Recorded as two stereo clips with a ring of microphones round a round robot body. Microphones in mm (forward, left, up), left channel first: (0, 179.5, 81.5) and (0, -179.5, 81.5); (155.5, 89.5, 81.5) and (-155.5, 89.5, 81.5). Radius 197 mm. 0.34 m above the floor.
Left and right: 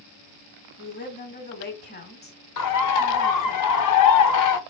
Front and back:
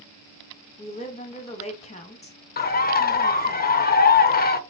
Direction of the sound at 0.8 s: 50° left.